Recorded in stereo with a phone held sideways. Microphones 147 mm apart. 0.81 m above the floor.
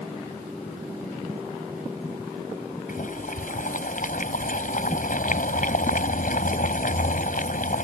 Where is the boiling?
70° left (ahead or behind).